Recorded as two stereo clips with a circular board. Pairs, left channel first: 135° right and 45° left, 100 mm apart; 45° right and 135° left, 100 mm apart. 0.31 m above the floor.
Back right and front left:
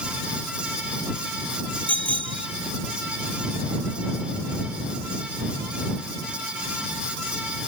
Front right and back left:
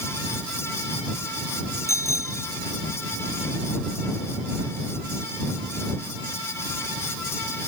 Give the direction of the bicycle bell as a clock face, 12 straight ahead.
11 o'clock.